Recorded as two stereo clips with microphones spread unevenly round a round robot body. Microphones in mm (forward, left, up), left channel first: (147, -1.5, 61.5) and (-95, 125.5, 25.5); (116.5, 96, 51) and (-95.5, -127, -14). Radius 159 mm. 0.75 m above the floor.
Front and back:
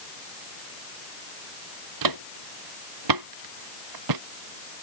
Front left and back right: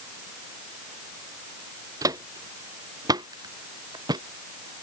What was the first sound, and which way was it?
Footsteps, 145° left.